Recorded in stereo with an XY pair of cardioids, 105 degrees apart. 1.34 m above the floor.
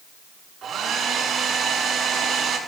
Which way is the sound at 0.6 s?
70° right.